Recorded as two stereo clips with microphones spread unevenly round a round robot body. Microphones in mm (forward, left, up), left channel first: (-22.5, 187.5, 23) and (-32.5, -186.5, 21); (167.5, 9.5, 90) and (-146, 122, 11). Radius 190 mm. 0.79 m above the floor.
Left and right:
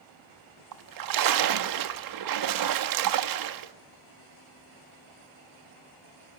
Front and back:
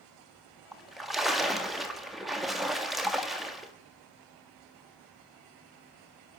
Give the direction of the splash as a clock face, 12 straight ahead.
4 o'clock.